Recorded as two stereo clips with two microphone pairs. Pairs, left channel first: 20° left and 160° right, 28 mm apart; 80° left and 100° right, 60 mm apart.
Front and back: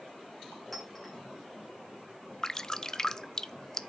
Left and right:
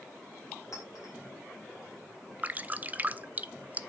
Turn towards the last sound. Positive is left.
turn(degrees=-40)